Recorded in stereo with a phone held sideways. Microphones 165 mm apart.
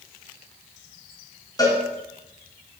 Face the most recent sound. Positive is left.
turn(degrees=25)  # may be behind; listen again after turning